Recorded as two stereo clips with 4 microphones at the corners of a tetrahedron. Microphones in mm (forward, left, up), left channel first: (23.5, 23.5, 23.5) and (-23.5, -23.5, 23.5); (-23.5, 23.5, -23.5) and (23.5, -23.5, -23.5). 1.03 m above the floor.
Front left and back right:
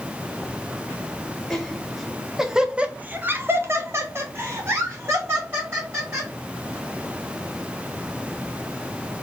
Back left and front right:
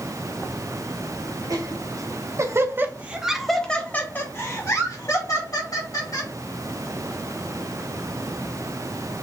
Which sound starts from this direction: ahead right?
Laughter, at 1.5 s.